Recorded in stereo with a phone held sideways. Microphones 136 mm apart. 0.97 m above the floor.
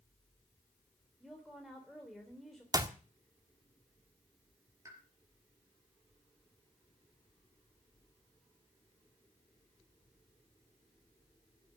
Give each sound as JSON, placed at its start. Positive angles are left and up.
{"t": 1.2, "sound": "a woman speaking", "side_deg": 0, "distance_m": 3.0}
{"t": 2.7, "sound": "a clap", "side_deg": -25, "distance_m": 1.4}
{"t": 4.8, "sound": "a pop", "side_deg": -20, "distance_m": 5.0}